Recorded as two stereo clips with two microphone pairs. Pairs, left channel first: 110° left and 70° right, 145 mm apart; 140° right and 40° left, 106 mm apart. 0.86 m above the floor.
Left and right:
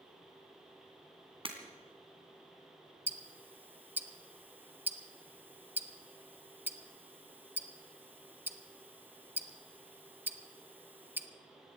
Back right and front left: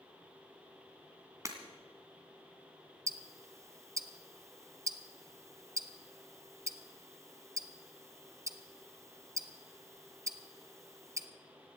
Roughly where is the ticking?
Ahead.